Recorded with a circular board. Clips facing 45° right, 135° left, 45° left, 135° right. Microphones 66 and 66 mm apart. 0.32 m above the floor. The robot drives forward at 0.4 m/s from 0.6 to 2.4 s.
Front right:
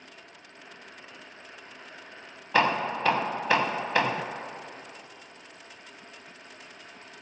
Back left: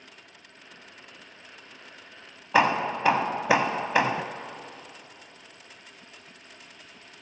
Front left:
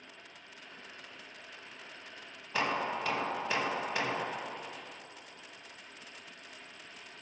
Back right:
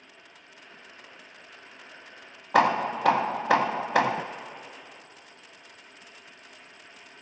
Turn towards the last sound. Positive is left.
turn(degrees=-150)